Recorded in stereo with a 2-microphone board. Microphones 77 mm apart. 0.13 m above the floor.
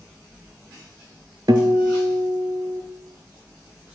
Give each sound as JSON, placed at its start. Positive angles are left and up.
{"t": 1.5, "sound": "a guitar", "side_deg": -60, "distance_m": 0.5}